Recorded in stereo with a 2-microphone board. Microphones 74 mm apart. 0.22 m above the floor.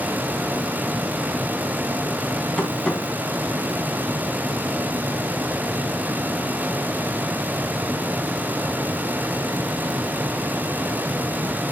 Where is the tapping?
10° left (ahead or behind), 1.6 m.